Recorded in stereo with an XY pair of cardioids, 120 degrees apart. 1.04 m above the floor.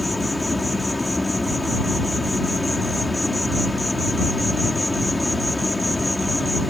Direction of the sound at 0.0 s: 15° left.